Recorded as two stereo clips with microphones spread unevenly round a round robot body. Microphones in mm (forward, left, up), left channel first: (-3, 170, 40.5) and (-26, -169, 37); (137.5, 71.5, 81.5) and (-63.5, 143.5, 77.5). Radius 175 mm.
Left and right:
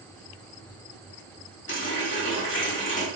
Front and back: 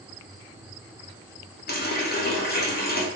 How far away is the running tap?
About 1.1 m.